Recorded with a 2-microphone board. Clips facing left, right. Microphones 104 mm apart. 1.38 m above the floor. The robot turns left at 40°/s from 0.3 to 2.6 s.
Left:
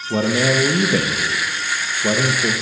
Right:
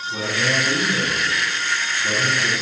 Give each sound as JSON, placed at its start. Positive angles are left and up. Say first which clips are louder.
{"t": 0.1, "sound": "a man speaking", "louder": "left 7 dB", "azimuth_deg": 115, "distance_m": 1.1}